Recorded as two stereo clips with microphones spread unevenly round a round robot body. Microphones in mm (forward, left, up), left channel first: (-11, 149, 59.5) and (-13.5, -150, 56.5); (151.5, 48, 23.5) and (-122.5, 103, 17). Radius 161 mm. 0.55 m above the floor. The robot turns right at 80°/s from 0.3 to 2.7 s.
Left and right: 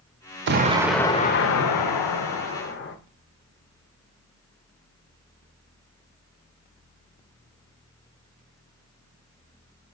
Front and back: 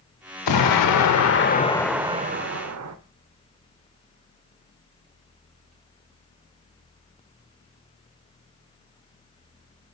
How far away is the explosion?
About 0.8 m.